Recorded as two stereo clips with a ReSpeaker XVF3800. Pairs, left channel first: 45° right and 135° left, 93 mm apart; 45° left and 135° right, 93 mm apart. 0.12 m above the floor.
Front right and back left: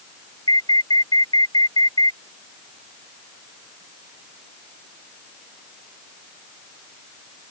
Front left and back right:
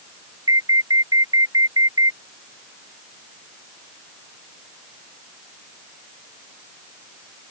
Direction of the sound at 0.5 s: 85° right.